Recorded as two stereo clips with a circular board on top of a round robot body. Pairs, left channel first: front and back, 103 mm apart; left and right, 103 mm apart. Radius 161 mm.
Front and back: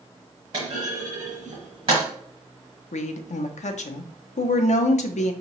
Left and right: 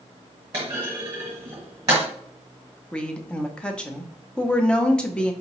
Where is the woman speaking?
10° left, 0.5 m.